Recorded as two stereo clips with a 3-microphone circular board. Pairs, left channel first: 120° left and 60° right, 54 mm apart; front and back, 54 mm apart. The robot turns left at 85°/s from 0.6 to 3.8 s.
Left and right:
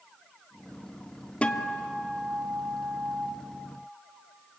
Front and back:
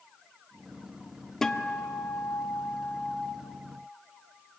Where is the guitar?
75° left, 1.1 m; by 3.3 s 85° right, 1.1 m.